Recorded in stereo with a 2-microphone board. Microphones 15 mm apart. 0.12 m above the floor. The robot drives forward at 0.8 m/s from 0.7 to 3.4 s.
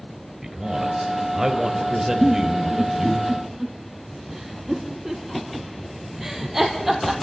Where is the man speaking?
25° right (ahead or behind), 2.5 m; by 3.2 s 15° right (ahead or behind), 4 m.